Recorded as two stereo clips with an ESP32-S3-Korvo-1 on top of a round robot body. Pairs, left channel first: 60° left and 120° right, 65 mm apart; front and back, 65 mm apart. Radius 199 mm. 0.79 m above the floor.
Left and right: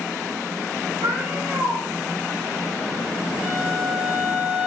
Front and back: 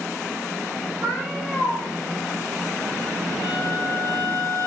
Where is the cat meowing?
105° right, 1.9 m.